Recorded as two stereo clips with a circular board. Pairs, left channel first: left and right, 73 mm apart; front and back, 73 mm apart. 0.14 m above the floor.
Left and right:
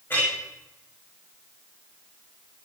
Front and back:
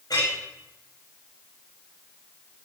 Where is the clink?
25° left, 8 m.